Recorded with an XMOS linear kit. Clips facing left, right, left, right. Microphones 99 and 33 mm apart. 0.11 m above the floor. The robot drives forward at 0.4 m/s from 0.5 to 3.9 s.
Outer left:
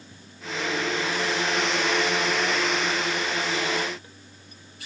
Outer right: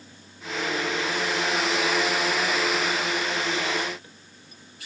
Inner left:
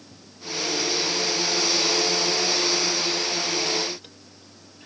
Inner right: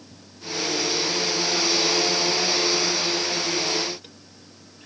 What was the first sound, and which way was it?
Only background noise.